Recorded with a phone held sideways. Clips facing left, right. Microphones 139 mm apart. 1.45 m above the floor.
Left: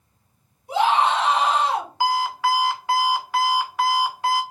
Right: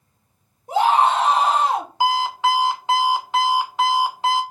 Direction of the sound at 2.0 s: 20° right (ahead or behind).